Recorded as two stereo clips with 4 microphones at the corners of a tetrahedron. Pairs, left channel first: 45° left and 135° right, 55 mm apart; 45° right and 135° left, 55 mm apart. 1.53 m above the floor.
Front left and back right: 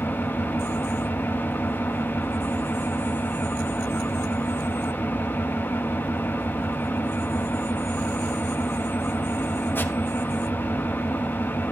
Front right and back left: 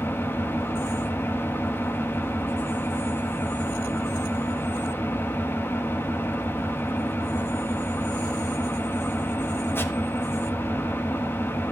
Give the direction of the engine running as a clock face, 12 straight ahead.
12 o'clock.